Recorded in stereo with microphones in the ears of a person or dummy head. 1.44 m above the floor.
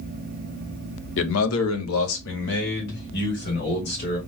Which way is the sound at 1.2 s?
65° left (ahead or behind).